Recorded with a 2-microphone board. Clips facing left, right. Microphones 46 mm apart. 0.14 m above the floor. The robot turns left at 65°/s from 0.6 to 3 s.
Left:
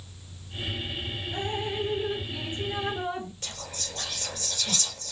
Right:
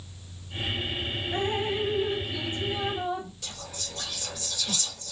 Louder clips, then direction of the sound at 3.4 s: Left 1 dB; 45° left (ahead or behind).